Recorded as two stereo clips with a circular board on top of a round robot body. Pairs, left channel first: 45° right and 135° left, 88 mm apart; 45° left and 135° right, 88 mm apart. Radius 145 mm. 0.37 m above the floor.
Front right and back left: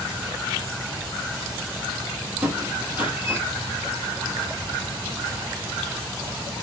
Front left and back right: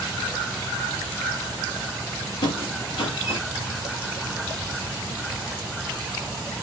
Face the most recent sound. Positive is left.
turn(degrees=60)